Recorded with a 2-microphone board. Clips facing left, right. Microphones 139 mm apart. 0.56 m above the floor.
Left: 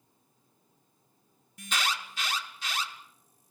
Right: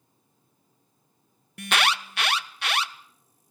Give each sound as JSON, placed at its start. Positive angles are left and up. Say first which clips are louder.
{"t": 1.6, "sound": "an alarm", "louder": "right 7 dB", "side_deg": -60, "distance_m": 0.7}